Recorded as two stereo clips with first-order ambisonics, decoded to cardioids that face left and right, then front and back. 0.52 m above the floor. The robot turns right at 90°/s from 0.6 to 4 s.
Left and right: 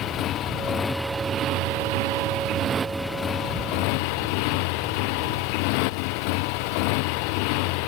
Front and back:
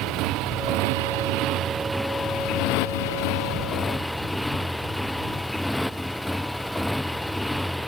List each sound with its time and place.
0.0 s a motorcycle: 140° left; by 7.9 s 90° left